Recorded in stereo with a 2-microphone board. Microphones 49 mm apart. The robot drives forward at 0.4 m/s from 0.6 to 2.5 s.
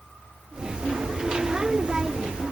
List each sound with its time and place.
Only background noise.